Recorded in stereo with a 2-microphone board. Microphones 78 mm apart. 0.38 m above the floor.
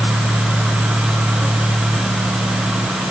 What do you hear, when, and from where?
Only background noise.